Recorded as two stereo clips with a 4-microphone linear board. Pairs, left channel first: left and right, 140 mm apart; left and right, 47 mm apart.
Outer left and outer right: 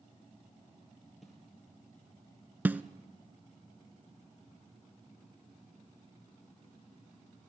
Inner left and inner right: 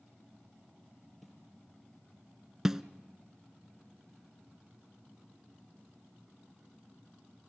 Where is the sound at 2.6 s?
15° right (ahead or behind), 0.6 m.